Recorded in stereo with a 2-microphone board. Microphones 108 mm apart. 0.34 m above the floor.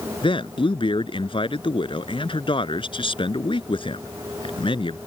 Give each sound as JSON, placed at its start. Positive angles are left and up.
{"t": 0.2, "sound": "a man speaking", "side_deg": 50}